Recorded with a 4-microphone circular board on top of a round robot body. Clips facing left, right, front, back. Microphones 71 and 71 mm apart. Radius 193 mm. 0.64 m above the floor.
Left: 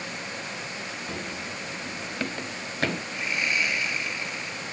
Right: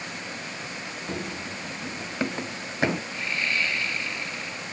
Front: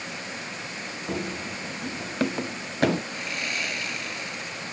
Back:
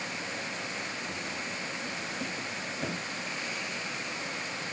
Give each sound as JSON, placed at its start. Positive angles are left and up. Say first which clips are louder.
{"t": 1.1, "sound": "running footsteps", "louder": "right 4 dB, front 5 dB", "azimuth_deg": -20}
{"t": 3.1, "sound": "sawing", "louder": "even, front 5 dB", "azimuth_deg": 15}